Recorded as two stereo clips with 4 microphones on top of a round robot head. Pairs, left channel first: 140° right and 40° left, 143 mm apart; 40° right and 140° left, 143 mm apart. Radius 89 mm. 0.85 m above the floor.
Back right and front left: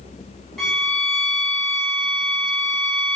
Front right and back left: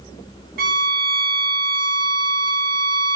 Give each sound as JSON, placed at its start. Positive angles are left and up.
{"t": 0.6, "sound": "a violin", "azimuth_deg": 130, "distance_m": 2.0}